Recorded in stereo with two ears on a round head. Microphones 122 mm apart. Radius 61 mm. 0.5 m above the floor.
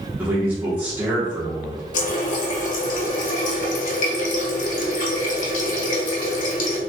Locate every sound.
0.2 s a man speaking: 15° right (ahead or behind), 0.9 m
1.9 s a running tap: 60° left (ahead or behind), 1.3 m